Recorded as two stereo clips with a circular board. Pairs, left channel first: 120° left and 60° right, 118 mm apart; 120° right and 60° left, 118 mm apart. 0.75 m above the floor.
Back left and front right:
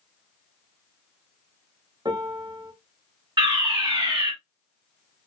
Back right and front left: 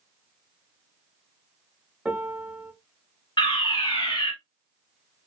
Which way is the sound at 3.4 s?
90° right.